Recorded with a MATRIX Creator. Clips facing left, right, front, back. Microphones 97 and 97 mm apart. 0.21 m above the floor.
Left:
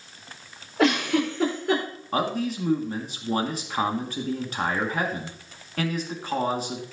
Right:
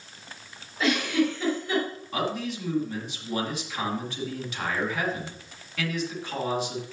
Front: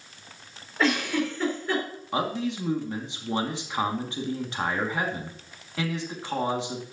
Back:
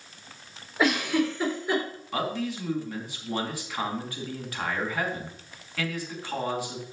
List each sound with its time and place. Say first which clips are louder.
0.8 s a giggle: left 2 dB, back 1 dB; 105° left, 4.5 m
2.1 s a man speaking: left 4 dB, front 2 dB; 60° left, 2.5 m